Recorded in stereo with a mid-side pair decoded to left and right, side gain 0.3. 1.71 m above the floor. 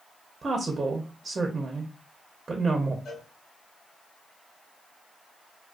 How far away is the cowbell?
About 1.3 m.